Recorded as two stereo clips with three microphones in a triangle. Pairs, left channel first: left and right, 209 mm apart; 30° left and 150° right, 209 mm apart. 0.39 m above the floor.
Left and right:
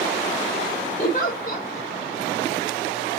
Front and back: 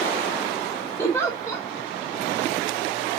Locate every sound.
1.0 s a giggle: 100° left, 1.6 m